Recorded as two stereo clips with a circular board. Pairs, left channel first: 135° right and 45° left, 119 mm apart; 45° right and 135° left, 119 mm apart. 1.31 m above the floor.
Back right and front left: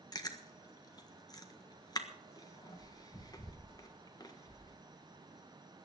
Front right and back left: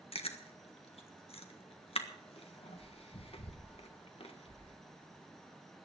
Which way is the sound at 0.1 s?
80° right.